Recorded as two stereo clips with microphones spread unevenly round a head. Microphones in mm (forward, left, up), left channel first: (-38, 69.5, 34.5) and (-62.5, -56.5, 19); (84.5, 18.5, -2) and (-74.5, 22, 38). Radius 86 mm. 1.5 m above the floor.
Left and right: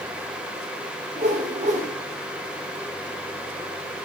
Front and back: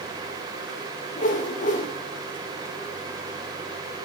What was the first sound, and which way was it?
A whoosh, 50° right.